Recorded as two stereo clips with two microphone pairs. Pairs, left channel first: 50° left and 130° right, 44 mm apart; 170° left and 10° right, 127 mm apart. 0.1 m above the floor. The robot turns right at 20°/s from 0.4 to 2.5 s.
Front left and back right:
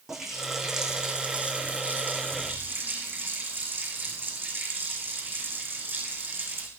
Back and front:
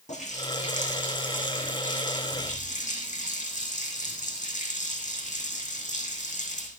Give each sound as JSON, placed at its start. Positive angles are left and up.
{"t": 0.1, "sound": "a running tap", "azimuth_deg": 145, "distance_m": 4.5}